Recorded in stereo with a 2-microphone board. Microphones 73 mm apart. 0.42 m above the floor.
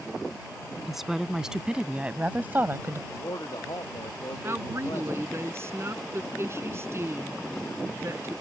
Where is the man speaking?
65° left (ahead or behind).